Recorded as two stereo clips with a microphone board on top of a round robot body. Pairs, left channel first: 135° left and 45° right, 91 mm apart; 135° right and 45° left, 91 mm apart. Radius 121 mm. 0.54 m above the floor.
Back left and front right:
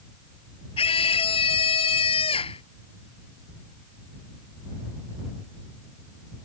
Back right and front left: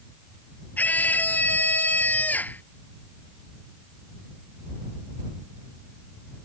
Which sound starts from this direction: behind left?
A scream, at 0.8 s.